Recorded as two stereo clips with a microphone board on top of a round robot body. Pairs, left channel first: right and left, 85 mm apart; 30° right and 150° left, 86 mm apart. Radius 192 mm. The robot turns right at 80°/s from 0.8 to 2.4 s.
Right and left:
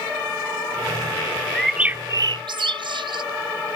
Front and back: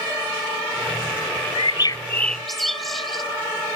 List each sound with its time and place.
1.6 s a bird: 10° right; by 3.2 s 60° left